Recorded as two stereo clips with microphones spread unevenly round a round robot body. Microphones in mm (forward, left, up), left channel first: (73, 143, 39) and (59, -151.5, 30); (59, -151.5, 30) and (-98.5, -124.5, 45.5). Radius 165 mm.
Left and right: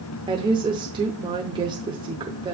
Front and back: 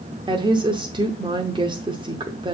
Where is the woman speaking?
150° right, 0.8 m.